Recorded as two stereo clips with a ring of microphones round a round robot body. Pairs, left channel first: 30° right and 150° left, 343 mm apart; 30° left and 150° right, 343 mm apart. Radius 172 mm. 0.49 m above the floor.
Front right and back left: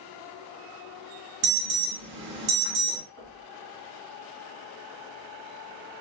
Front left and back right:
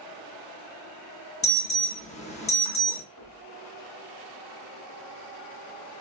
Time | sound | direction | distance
1.4 | an alarm | 100° left | 0.8 m
3.2 | knocking | 65° left | 2 m